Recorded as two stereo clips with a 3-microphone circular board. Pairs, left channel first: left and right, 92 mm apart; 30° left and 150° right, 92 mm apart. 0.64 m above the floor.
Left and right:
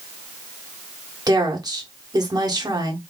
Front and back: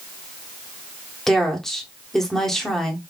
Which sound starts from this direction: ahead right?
A woman speaking, at 1.3 s.